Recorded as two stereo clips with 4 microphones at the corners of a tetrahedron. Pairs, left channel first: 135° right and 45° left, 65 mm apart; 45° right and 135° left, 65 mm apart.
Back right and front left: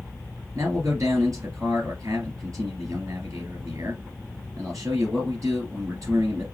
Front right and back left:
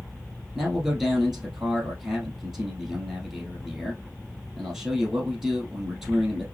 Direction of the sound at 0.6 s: 55° left.